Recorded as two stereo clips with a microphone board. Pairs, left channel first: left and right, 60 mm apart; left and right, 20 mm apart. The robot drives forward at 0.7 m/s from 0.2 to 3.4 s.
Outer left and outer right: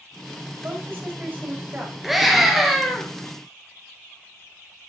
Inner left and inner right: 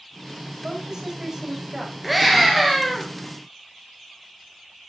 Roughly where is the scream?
Centre.